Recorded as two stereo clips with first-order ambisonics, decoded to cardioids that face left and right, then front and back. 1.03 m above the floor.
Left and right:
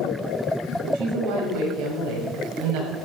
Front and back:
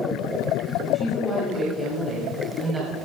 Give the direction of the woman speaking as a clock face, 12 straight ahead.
3 o'clock.